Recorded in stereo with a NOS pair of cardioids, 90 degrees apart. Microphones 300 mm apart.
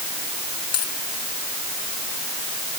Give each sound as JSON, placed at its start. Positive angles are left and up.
{"t": 0.7, "sound": "a dropped coin", "azimuth_deg": 60}